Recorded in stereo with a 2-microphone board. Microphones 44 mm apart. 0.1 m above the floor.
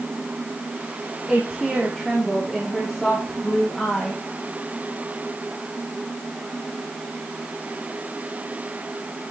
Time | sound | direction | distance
1.3 | a woman speaking | 15° right (ahead or behind) | 6.5 m